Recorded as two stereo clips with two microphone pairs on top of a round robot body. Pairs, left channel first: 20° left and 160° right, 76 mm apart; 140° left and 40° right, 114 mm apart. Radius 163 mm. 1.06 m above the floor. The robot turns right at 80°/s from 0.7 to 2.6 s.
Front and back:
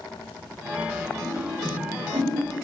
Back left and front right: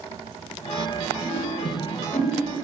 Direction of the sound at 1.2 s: 55° left.